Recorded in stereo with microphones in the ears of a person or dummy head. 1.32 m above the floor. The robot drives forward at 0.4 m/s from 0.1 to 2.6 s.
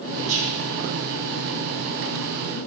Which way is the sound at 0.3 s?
40° right (ahead or behind).